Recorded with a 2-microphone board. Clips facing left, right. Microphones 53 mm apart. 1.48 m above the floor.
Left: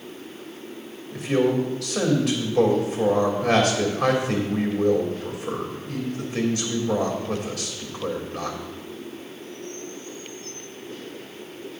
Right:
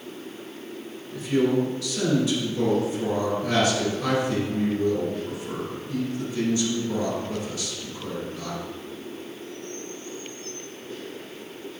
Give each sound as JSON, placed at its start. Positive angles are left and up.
{"t": 1.1, "sound": "a man speaking", "side_deg": 80, "distance_m": 2.5}